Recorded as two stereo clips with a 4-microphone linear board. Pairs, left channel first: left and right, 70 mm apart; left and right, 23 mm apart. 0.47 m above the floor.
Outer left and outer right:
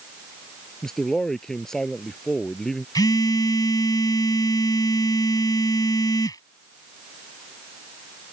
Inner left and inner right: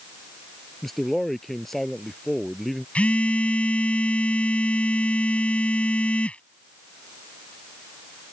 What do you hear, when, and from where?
0.8 s a man speaking: 10° left (ahead or behind)
3.0 s a phone buzzing: 70° left (ahead or behind)